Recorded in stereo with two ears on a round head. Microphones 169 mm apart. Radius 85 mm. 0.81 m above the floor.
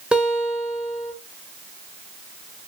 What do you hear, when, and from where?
0.1 s a guitar: 5° right (ahead or behind), 1.1 m